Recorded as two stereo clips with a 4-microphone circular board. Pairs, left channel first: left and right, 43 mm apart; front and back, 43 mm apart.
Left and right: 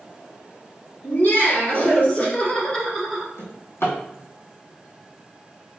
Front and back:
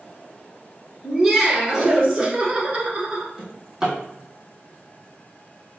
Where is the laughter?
90° left, 1.7 m; by 3.3 s 175° right, 1.3 m.